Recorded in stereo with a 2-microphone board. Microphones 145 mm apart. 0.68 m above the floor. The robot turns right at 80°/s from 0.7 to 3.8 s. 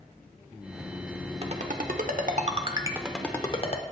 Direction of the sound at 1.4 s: 40° right (ahead or behind).